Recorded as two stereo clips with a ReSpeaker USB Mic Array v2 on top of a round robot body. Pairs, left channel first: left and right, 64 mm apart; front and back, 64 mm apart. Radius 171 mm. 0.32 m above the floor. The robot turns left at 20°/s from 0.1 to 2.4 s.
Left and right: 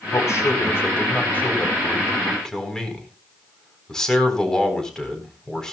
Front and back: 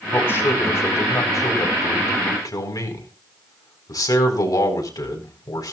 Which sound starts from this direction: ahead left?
A man speaking, at 0.1 s.